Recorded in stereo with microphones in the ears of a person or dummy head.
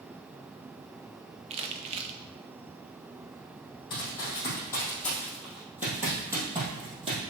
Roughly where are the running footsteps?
Left.